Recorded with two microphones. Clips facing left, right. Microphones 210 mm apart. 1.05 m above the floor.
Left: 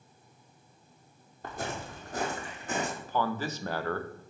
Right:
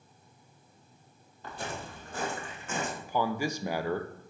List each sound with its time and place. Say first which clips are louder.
1.4 s footsteps: left 2 dB; 50° left (ahead or behind), 2.5 m; by 2.9 s 35° left (ahead or behind), 3 m
3.0 s a man speaking: right 1 dB; 15° right (ahead or behind), 0.7 m